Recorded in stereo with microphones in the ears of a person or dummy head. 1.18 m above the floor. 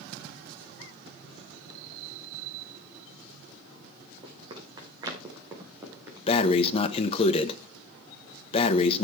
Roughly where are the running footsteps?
Right.